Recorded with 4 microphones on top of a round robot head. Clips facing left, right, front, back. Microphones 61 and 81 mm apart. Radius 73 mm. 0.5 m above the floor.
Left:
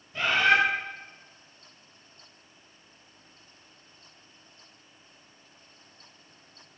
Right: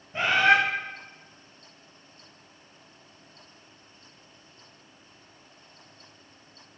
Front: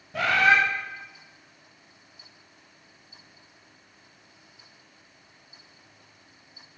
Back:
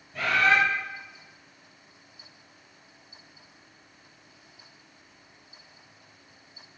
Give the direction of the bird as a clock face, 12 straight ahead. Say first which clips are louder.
Right 2 dB, front 2 dB; 1 o'clock.